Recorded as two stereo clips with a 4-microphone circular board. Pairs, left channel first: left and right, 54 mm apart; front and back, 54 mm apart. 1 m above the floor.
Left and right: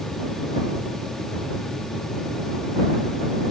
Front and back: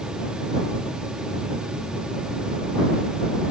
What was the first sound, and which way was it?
Only background noise.